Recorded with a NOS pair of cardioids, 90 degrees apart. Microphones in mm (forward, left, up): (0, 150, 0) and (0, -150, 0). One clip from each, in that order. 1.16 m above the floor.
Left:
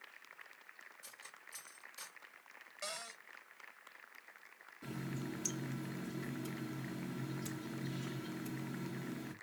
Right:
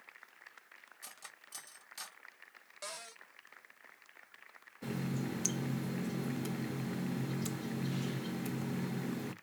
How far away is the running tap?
About 0.7 m.